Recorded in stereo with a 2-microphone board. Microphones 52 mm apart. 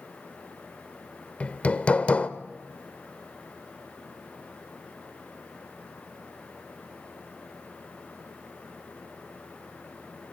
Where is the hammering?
25° left (ahead or behind), 1.0 m.